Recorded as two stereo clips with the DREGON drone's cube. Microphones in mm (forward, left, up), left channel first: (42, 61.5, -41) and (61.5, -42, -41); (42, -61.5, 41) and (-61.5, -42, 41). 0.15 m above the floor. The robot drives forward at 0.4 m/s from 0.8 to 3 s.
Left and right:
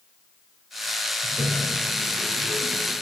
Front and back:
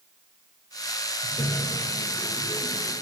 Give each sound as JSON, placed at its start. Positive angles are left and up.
{"t": 1.2, "sound": "a toilet flushing", "azimuth_deg": -45, "distance_m": 6.0}